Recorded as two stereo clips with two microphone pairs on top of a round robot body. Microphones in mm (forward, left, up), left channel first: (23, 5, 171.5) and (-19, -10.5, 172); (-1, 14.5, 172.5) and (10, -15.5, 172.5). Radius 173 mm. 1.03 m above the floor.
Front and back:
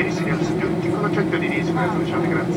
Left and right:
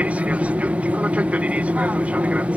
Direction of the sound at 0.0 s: 70° right.